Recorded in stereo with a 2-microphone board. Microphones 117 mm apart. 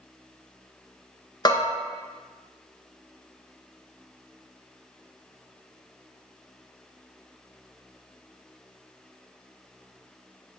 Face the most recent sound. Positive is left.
turn(degrees=40)  # may be behind; listen again after turning